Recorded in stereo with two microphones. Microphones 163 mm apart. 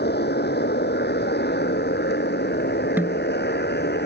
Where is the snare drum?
10° right (ahead or behind).